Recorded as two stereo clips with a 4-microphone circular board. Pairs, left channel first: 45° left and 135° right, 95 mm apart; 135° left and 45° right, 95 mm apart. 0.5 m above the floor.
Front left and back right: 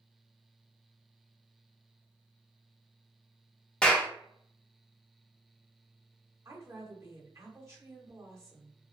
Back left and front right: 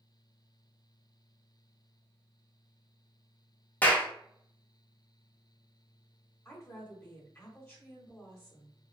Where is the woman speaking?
175° right, 1.1 m.